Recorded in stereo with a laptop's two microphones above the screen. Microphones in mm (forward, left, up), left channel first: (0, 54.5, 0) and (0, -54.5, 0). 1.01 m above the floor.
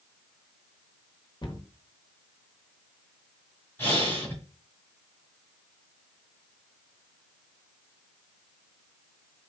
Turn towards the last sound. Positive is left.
turn(degrees=15)  # may be behind; listen again after turning